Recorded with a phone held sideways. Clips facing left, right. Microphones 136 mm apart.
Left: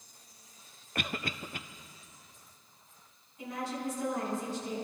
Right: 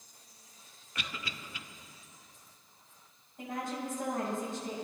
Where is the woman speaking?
50° right (ahead or behind), 7 m.